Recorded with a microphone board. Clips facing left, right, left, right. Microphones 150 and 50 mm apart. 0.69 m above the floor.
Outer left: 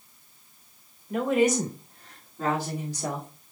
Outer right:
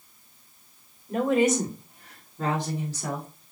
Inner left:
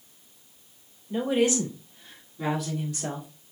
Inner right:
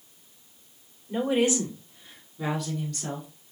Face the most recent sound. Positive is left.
turn(degrees=25)  # may be behind; listen again after turning